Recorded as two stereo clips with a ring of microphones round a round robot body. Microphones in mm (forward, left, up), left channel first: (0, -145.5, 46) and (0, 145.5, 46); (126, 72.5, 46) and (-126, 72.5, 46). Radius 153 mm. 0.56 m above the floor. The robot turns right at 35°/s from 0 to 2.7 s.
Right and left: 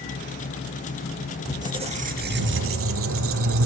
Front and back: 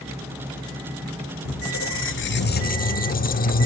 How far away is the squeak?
About 1.2 m.